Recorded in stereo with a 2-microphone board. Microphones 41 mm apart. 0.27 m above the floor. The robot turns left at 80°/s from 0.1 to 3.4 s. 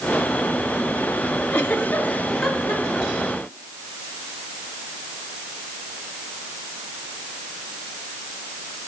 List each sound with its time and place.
1.5 s a giggle: 65° left (ahead or behind), 1.4 m; by 3.3 s 55° right (ahead or behind), 1.4 m